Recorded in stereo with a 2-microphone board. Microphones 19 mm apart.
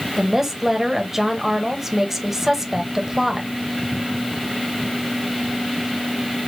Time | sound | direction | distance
0.2 | a woman speaking | 15° right (ahead or behind) | 1.2 m